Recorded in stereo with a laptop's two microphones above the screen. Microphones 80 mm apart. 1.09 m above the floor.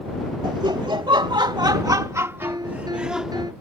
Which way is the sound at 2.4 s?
55° right (ahead or behind).